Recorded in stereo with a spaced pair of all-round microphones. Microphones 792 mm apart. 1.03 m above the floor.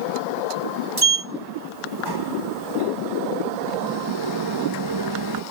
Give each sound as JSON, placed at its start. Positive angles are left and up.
{"t": 1.0, "sound": "a sliding door", "side_deg": -30}